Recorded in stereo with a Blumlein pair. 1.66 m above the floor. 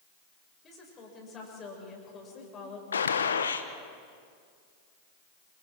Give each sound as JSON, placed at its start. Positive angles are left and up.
{"t": 0.6, "sound": "a woman speaking", "azimuth_deg": 25, "distance_m": 7.0}
{"t": 2.9, "sound": "a gunshot", "azimuth_deg": 70, "distance_m": 1.2}